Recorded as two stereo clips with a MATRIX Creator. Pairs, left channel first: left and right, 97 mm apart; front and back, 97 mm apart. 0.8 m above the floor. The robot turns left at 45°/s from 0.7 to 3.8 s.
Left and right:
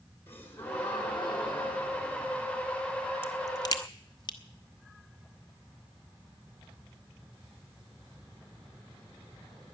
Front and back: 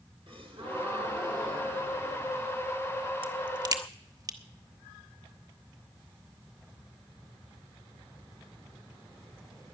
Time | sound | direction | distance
0.3 | a gasp | 155° left | 3.5 m
3.2 | a crack | 155° left | 1.1 m